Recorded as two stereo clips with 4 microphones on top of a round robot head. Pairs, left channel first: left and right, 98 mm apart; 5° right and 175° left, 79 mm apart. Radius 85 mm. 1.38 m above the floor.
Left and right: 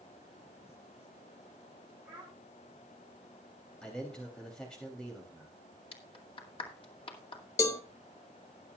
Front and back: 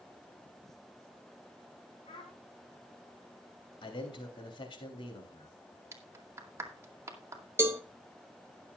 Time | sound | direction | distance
2.0 | a child speaking | 10° right | 3.5 m
3.8 | a man speaking | 5° left | 3 m
5.9 | a clap | 120° left | 2.0 m
7.6 | a cowbell | 130° left | 0.6 m